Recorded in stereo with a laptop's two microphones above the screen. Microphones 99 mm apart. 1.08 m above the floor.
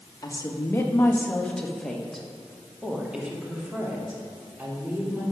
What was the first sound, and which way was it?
A woman speaking, 40° left (ahead or behind).